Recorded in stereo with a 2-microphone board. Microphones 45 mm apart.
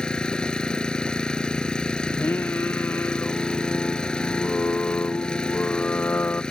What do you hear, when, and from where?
0.0 s an engine running: 20° left (ahead or behind)
2.1 s singing: 50° left (ahead or behind)